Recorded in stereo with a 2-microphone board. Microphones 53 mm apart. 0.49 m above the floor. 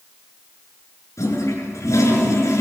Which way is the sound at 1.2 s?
80° left.